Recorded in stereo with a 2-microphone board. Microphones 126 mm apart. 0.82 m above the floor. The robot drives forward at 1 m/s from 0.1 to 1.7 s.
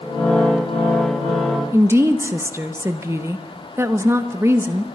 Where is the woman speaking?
20° right (ahead or behind), 0.7 m.